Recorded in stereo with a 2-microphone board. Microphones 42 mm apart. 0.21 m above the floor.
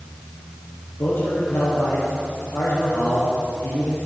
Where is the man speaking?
65° left (ahead or behind), 6 m.